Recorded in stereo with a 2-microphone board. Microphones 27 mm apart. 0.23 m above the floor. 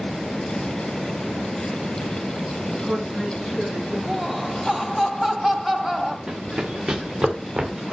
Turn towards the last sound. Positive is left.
turn(degrees=-40)  # may be behind; listen again after turning